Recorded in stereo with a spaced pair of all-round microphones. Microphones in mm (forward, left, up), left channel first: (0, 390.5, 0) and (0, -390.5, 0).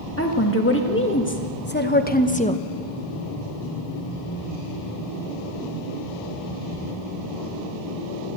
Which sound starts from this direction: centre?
A woman speaking, at 0.2 s.